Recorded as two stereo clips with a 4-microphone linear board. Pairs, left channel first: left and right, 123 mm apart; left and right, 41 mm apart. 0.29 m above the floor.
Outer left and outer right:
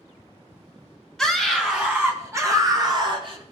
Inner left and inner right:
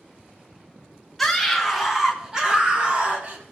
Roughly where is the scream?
Centre.